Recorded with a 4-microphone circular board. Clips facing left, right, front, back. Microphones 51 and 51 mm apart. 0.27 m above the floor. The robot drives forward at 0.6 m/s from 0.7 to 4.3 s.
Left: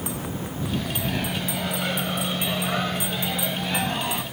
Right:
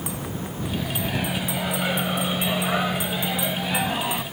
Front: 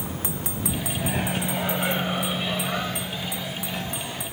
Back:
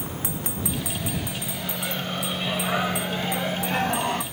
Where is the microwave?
10° right; by 4.2 s 170° right.